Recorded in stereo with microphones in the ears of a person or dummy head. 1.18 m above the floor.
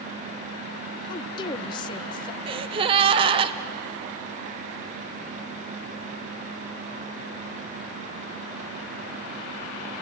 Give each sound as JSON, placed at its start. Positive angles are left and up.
{"t": 1.1, "sound": "a woman speaking", "side_deg": 25, "distance_m": 1.0}
{"t": 2.5, "sound": "a gasp", "side_deg": -30, "distance_m": 0.7}